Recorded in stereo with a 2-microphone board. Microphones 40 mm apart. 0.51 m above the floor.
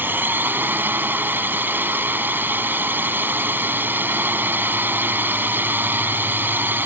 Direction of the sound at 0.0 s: 60° right (ahead or behind).